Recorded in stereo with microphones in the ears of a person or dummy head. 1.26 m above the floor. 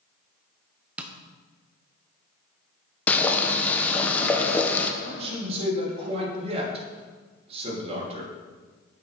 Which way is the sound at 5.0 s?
35° right (ahead or behind).